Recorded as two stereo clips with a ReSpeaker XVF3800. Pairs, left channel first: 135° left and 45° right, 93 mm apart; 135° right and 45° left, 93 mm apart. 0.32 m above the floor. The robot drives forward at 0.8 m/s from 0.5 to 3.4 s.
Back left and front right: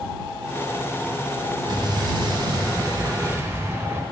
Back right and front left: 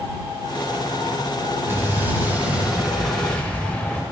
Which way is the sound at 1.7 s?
15° right.